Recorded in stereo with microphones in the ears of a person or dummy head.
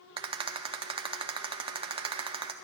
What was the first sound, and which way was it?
A rattle, 25° right (ahead or behind).